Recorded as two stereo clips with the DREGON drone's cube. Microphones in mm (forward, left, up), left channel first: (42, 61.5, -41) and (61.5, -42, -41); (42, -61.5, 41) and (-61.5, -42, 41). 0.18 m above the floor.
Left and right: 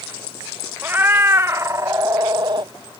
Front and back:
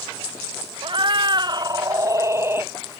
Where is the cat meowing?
150° right; by 2.7 s 120° right.